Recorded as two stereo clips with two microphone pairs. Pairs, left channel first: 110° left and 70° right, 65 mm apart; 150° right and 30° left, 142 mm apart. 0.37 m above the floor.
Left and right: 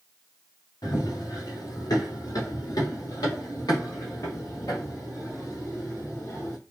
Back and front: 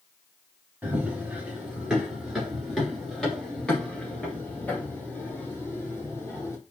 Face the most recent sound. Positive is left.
turn(degrees=140)